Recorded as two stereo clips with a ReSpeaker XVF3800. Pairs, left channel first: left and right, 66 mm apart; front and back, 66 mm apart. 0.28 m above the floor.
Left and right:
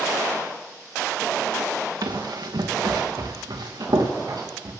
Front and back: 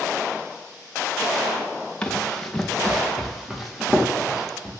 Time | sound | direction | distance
2.0 | running footsteps | 75° right | 1.5 m